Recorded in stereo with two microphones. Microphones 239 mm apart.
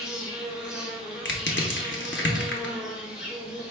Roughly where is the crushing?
Left.